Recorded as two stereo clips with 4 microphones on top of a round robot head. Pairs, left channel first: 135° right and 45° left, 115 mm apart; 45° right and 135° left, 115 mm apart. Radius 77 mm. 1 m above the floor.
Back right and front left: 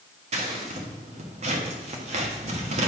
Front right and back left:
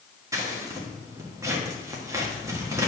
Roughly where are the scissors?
Left.